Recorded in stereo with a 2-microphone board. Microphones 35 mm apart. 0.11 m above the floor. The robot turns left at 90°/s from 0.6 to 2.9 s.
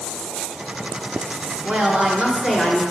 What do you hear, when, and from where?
1.6 s a woman speaking: 75° right, 1.2 m; by 2.8 s straight behind, 1.2 m